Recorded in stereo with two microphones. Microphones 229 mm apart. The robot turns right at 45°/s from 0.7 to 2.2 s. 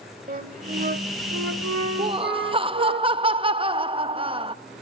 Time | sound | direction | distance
0.3 | a flute | 140° right | 0.9 m
2.0 | laughter | 20° right (ahead or behind) | 0.6 m